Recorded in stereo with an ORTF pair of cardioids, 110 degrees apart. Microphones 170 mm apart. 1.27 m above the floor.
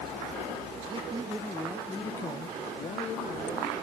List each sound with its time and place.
0.9 s a man speaking: 30° right, 0.8 m; by 3.7 s 50° left, 1.5 m